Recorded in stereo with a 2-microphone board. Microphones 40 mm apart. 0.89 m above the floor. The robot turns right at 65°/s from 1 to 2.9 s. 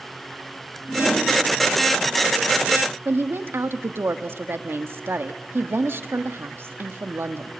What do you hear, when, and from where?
0.9 s a whoosh: 45° left (ahead or behind), 10 m; by 1.3 s 60° left (ahead or behind), 10 m
3.0 s a woman speaking: 75° right (ahead or behind), 1.3 m